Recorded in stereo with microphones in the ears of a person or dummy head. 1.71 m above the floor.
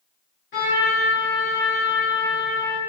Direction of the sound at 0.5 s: 35° left (ahead or behind).